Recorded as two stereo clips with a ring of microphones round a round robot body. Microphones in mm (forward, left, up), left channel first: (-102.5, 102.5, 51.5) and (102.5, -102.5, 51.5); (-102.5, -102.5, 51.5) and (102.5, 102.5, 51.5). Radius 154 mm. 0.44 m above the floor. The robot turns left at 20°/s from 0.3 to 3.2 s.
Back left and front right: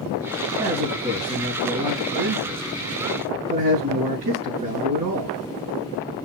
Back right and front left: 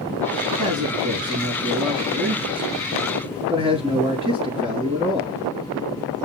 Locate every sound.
0.6 s a man speaking: 25° left, 4.5 m; by 5.4 s 25° right, 4.5 m